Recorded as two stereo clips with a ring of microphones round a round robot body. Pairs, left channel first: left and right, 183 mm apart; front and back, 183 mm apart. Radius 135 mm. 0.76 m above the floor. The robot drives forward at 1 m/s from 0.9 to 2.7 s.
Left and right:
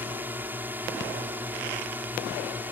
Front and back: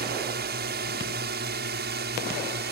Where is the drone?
170° right.